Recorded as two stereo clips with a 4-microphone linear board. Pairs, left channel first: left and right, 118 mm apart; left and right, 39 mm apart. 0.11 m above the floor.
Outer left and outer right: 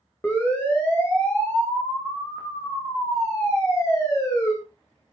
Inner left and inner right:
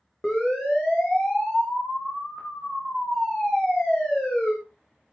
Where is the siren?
15° left (ahead or behind), 9 m; by 4.5 s 25° left (ahead or behind), 10 m.